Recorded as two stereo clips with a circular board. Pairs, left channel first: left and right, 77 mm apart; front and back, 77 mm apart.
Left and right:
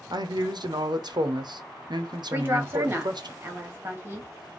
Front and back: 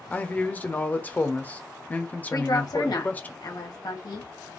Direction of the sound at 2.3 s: 30° right.